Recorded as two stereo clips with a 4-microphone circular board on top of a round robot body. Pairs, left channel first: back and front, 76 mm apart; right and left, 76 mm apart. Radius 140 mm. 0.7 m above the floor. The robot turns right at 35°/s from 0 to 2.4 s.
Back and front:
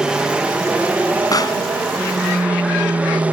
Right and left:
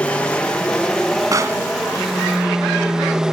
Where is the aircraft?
60° right; by 3.3 s 25° left.